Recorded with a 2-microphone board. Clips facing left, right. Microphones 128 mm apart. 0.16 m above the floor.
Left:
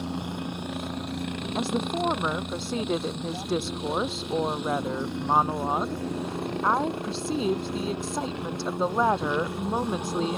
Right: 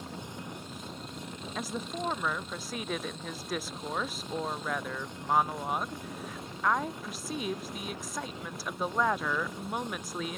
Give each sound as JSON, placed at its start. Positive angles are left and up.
{"t": 0.0, "sound": "a helicopter", "side_deg": 70}
{"t": 1.6, "sound": "a woman speaking", "side_deg": 30}